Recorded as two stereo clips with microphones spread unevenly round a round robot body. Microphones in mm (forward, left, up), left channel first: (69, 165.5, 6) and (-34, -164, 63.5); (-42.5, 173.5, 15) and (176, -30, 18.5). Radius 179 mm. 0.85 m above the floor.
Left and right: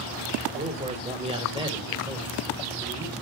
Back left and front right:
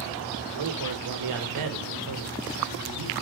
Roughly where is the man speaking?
Ahead right.